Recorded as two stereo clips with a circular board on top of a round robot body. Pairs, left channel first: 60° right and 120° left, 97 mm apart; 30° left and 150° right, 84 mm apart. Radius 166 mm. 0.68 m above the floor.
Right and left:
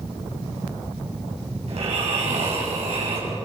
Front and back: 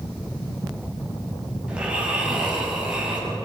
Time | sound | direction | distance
1.7 | snoring | 135° left | 6.5 m